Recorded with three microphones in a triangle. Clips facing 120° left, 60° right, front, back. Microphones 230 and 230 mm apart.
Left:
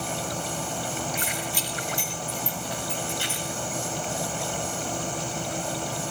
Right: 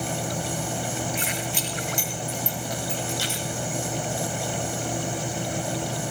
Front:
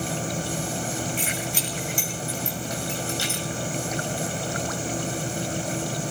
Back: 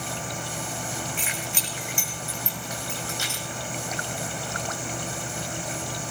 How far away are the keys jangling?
About 6.5 m.